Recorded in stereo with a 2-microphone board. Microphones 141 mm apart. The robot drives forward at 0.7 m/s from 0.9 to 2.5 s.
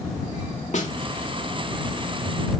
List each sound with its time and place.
0.7 s a snare drum: 55° left (ahead or behind), 2.5 m